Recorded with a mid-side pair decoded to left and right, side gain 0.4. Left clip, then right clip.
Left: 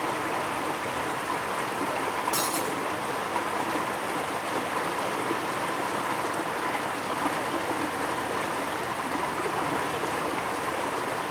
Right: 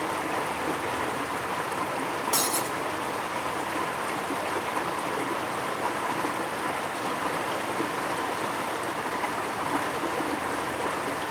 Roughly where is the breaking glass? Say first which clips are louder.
Right 1 dB; ahead right.